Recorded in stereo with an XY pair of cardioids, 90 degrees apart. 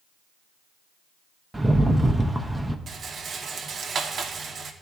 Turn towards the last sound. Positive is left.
turn(degrees=-55)